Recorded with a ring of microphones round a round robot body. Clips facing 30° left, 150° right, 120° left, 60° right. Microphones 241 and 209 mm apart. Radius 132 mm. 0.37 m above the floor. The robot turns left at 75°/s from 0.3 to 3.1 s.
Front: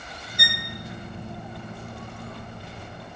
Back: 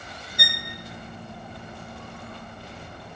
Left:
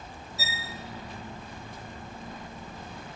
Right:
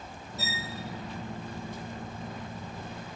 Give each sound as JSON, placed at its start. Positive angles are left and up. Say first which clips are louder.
{"t": 0.4, "sound": "a violin", "louder": "front 1 dB, right 4 dB", "azimuth_deg": -150, "distance_m": 0.6}